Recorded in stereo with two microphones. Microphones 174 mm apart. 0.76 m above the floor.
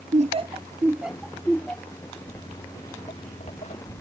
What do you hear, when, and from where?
0.1 s laughter: 40° right (ahead or behind); by 2.2 s 15° left (ahead or behind)
2.3 s footsteps: 35° left (ahead or behind); by 4.0 s 45° left (ahead or behind)